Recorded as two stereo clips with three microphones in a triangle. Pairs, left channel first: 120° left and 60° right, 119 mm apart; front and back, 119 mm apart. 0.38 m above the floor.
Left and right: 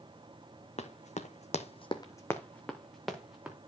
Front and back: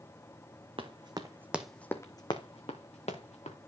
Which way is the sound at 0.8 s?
140° left.